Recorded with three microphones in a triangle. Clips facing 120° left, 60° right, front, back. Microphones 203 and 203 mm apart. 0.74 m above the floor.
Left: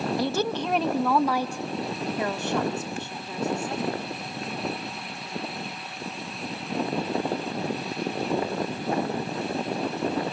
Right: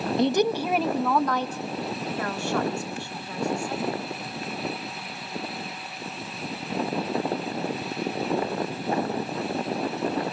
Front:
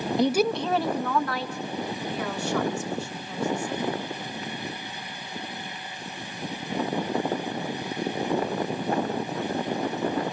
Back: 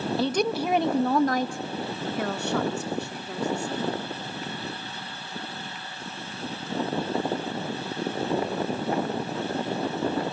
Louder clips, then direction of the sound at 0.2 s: Right 4 dB, front 4 dB; 35° right.